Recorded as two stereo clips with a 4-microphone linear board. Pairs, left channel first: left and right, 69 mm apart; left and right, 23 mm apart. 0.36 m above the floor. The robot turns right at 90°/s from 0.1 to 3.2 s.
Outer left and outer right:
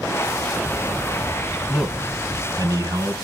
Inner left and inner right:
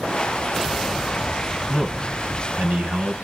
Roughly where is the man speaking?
Behind.